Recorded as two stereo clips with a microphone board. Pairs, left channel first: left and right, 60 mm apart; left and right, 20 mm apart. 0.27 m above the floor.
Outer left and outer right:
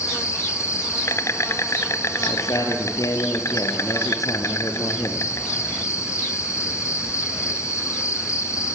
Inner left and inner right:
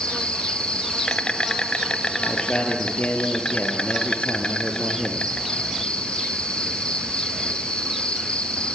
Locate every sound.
0.0 s an insect: 50° left (ahead or behind), 1.6 m
2.2 s a man speaking: 70° left (ahead or behind), 5 m